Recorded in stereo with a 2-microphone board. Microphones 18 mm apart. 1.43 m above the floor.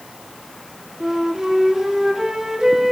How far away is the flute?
About 2 m.